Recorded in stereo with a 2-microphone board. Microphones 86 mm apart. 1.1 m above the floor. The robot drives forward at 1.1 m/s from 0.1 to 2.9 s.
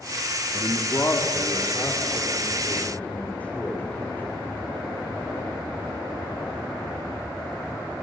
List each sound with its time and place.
0.5 s a man speaking: 40° left (ahead or behind), 2 m; by 4.2 s 20° left (ahead or behind), 4.5 m